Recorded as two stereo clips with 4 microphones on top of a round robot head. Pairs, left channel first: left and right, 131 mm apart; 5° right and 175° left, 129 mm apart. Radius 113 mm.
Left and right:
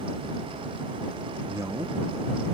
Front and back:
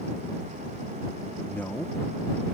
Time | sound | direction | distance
1.5 | a man speaking | 65° right | ?